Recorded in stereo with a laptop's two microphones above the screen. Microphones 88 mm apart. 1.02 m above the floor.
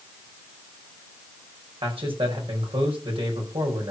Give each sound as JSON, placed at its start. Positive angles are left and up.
{"t": 1.8, "sound": "a man speaking", "side_deg": -85, "distance_m": 5.0}